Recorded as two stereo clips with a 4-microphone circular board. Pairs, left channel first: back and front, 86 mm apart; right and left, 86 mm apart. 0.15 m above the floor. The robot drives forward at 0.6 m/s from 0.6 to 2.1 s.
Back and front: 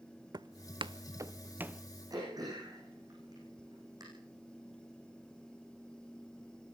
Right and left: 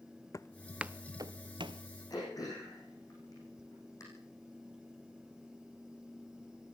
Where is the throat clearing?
45° right, 9.5 m.